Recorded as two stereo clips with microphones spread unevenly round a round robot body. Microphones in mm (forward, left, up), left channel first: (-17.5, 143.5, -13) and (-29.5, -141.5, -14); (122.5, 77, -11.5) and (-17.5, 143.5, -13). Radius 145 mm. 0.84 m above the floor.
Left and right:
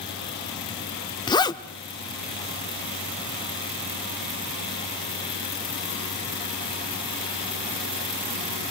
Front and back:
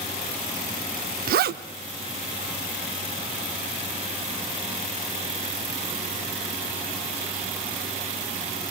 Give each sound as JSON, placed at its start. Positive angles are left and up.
{"t": 1.3, "sound": "a zipper", "azimuth_deg": 160, "distance_m": 0.6}